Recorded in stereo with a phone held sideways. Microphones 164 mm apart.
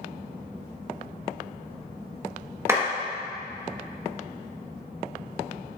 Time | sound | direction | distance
2.7 | a clap | 15° right (ahead or behind) | 1.2 m